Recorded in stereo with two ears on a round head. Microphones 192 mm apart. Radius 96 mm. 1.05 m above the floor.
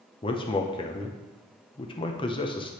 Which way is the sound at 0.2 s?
25° left (ahead or behind).